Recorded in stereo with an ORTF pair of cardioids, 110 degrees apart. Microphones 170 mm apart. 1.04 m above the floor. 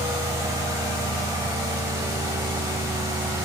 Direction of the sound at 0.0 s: 20° right.